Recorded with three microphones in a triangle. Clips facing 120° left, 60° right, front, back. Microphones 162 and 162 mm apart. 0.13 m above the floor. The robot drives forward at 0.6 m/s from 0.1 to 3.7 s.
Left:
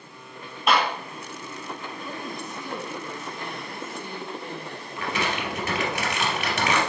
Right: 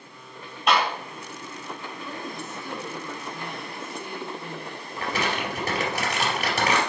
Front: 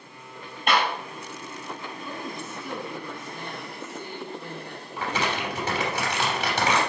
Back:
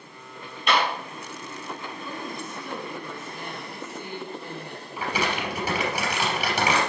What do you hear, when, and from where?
0.7 s a clap: 30° left, 3 m; by 0.9 s 35° left, 3 m
2.0 s a woman speaking: 50° left, 1.7 m; by 6.0 s 130° left, 1.7 m
5.0 s crumpling: 100° right, 2.5 m